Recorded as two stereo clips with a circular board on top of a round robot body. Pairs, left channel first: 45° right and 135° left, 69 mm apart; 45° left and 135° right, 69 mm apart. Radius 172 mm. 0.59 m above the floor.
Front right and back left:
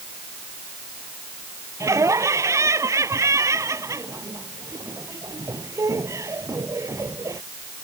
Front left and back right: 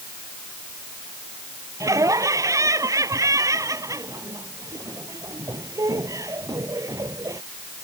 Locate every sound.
1.8 s laughter: straight behind